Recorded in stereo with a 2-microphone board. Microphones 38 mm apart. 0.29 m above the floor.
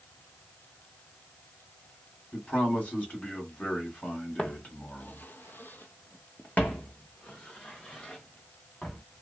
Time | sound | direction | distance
2.3 | a man speaking | 40° left (ahead or behind) | 1.7 m
4.4 | footsteps | 30° left (ahead or behind) | 0.7 m